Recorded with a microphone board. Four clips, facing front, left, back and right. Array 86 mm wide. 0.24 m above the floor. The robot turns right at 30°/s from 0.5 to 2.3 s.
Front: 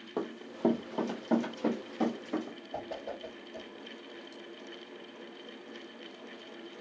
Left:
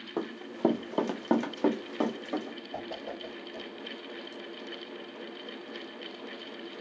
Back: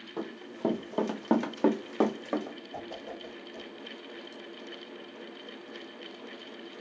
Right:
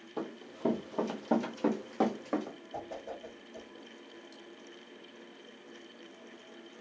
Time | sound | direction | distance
0.2 | running footsteps | 65° left | 0.8 m
2.7 | a whoosh | 45° left | 0.6 m